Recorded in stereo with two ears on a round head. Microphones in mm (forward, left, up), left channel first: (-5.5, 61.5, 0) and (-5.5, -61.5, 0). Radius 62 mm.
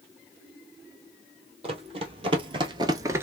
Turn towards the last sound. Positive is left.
turn(degrees=-15)  # may be behind; listen again after turning